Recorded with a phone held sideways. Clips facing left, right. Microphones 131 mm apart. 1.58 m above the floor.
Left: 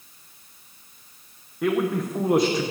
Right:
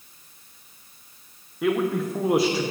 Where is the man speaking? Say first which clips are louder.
Even; 5° right (ahead or behind), 0.6 m.